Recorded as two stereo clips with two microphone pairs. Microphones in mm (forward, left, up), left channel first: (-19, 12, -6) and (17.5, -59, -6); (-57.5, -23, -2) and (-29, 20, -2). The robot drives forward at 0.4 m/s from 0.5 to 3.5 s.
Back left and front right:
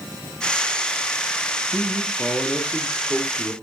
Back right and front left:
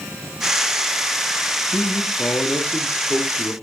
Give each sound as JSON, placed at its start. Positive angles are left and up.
{"t": 1.7, "sound": "a man speaking", "azimuth_deg": -150, "distance_m": 0.9}